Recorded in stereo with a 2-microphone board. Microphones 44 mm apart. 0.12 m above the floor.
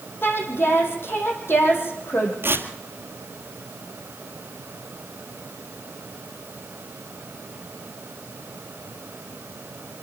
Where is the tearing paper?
60° right (ahead or behind), 1.7 m.